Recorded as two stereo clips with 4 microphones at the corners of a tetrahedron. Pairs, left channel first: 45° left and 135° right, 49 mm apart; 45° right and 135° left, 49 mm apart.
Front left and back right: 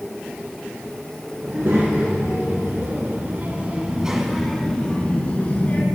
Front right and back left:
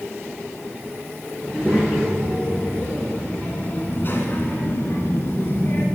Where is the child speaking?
135° right, 2.5 m; by 5.8 s 5° right, 2.0 m.